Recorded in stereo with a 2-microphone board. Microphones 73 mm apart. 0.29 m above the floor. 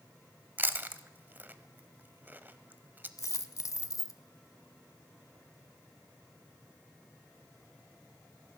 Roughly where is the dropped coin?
Left.